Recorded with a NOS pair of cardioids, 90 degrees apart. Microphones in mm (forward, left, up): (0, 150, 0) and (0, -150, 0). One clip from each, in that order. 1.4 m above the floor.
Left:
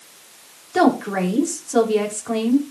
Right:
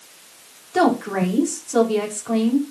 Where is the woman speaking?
5° left, 4.5 m.